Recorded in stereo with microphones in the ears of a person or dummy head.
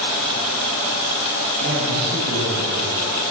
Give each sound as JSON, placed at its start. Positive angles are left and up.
{"t": 1.6, "sound": "a man speaking", "side_deg": -55, "distance_m": 10.0}